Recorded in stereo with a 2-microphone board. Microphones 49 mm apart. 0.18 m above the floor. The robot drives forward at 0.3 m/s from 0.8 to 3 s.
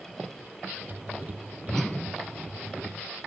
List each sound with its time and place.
1.7 s a whoosh: 5° left (ahead or behind), 1.0 m